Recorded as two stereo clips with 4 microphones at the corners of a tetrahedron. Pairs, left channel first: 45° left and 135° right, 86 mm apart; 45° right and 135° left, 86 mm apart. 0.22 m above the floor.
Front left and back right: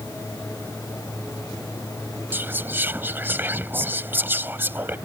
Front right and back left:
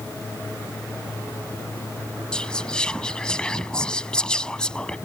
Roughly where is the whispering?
Right.